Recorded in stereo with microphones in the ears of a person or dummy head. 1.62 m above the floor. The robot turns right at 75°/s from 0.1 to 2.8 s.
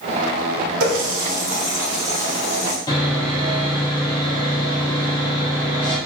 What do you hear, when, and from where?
0.8 s a running tap: 90° right, 3 m; by 2.8 s 60° left, 3 m
2.9 s sawing: 20° left (ahead or behind), 3 m